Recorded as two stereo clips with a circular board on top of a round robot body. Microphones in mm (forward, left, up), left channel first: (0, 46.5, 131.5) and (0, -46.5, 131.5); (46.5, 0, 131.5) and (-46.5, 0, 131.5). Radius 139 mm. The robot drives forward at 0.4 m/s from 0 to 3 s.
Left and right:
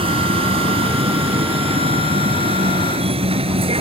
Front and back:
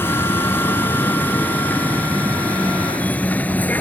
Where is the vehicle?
70° right; by 3.8 s 75° right.